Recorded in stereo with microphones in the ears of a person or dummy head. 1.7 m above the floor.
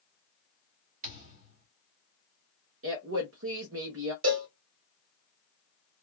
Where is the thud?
45° right (ahead or behind), 1.7 m.